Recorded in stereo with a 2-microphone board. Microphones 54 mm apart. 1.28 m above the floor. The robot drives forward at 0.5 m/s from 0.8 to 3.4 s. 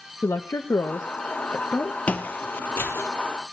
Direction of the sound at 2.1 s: 30° left (ahead or behind).